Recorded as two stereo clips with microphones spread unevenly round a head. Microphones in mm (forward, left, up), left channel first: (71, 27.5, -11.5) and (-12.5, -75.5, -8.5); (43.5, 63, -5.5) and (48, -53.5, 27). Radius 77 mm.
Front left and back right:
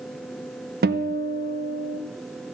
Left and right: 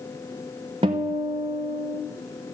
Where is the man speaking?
No man speaking in this recording.